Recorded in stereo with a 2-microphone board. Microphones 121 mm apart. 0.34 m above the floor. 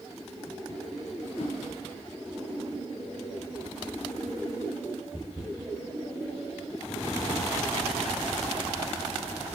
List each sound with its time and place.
1.4 s a whoosh: 65° left (ahead or behind), 1.7 m